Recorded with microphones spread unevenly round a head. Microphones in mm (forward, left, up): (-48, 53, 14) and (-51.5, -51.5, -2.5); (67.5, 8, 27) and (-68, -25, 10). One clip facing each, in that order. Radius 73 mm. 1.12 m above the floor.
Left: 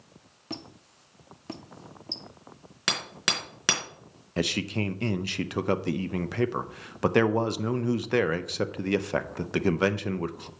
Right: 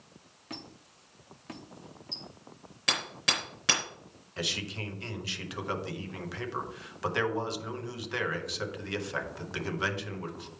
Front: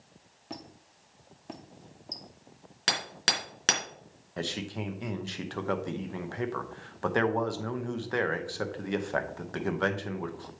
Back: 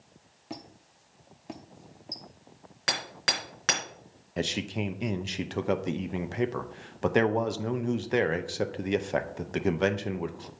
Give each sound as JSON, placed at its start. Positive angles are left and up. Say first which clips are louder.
{"t": 0.5, "sound": "a squeak", "louder": "left 5 dB, back 1 dB", "azimuth_deg": 105, "distance_m": 0.7}
{"t": 2.9, "sound": "hammering", "louder": "left 1 dB, even", "azimuth_deg": 70, "distance_m": 3.0}
{"t": 4.4, "sound": "a man speaking", "louder": "left 9 dB, back 4 dB", "azimuth_deg": 125, "distance_m": 0.7}